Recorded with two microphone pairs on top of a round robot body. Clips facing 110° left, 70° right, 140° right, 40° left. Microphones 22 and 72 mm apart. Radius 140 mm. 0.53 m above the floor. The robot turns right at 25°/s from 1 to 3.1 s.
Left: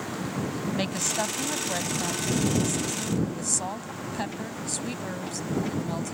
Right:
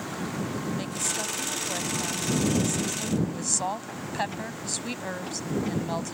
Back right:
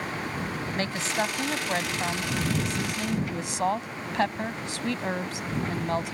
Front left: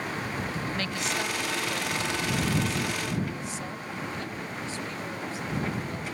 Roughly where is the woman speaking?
Behind.